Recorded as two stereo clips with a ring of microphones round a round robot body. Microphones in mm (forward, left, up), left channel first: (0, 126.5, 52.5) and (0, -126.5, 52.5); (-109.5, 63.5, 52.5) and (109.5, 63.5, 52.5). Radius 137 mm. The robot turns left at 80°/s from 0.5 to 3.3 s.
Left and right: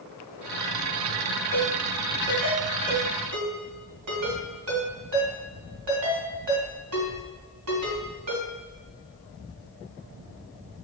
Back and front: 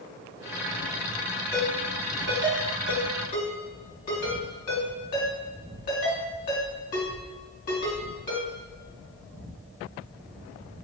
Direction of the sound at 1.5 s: 20° left.